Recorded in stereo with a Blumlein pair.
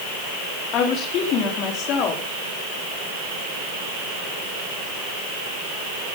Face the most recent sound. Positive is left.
turn(degrees=35)